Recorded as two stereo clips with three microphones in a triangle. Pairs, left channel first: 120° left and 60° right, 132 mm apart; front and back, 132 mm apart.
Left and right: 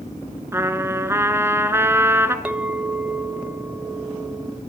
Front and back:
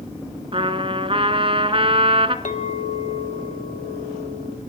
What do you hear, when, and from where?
0.5 s a trumpet: 130° right, 1.2 m
2.5 s a clink: 20° left, 0.9 m